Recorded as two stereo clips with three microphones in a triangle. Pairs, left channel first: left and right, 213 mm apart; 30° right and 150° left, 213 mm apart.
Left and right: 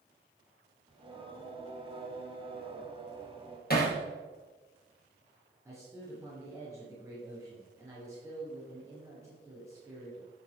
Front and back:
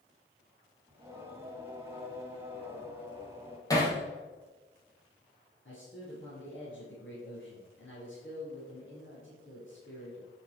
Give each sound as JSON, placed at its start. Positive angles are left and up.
{"t": 0.9, "sound": "singing", "azimuth_deg": -140, "distance_m": 1.7}
{"t": 3.7, "sound": "hammering", "azimuth_deg": 45, "distance_m": 2.0}
{"t": 5.7, "sound": "a man speaking", "azimuth_deg": -15, "distance_m": 3.0}